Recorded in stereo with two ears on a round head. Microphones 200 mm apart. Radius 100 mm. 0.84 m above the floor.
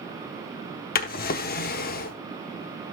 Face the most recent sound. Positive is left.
turn(degrees=40)  # may be behind; listen again after turning